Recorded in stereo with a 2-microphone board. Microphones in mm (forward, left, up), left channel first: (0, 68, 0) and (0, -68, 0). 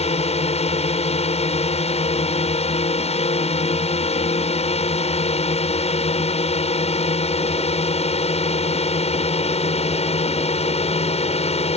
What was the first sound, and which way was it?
A drone, 50° left (ahead or behind).